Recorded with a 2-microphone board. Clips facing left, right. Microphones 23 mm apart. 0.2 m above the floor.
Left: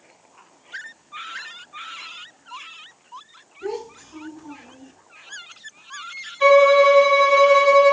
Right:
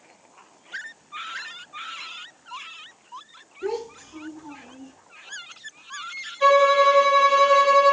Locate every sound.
3.6 s a child speaking: 5° right (ahead or behind), 1.0 m; by 4.9 s 30° left (ahead or behind), 1.9 m
6.4 s a violin: 30° left (ahead or behind), 2.5 m